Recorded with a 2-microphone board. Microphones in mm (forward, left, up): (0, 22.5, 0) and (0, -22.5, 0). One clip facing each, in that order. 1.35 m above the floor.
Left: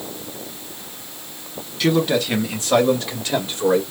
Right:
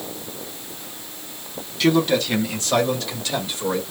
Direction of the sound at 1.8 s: 5° left (ahead or behind).